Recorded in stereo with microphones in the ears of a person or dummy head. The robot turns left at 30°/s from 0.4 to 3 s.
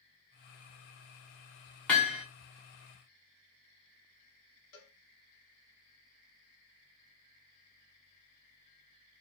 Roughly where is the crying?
I don't hear crying.